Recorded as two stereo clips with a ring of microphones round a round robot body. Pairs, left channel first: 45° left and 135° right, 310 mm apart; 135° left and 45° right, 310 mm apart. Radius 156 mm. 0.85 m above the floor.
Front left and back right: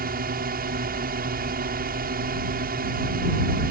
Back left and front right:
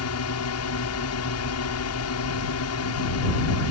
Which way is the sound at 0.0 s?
165° left.